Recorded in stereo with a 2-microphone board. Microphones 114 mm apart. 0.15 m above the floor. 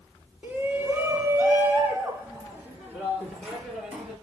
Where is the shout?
15° right (ahead or behind), 1.2 m; by 4.1 s 10° right (ahead or behind), 2.5 m.